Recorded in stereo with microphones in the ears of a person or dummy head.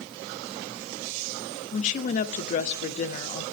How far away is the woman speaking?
About 0.5 m.